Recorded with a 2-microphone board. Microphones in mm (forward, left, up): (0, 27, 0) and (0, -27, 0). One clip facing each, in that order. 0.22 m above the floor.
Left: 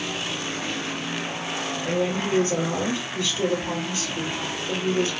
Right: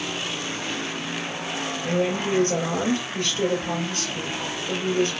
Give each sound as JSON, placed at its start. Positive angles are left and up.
{"t": 1.8, "sound": "a woman speaking", "side_deg": -45, "distance_m": 3.5}